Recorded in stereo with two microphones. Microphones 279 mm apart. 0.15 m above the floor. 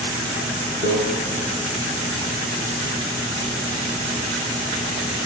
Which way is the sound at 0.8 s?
35° right (ahead or behind).